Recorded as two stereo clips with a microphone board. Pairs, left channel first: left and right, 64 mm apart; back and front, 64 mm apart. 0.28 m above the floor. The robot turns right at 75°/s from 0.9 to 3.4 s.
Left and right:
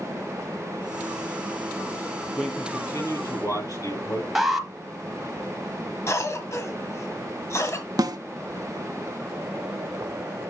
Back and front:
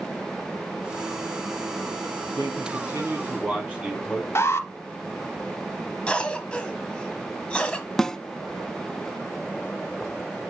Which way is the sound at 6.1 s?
110° left.